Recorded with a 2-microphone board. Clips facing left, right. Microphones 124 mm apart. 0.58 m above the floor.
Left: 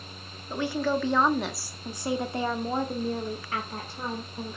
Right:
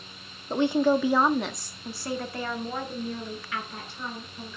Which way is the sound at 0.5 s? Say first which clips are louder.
Right 5 dB; 25° right (ahead or behind).